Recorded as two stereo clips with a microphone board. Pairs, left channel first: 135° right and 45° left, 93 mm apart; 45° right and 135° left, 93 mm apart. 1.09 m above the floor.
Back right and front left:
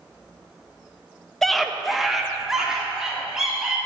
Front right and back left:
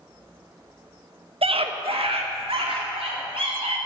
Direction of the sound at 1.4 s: 140° left.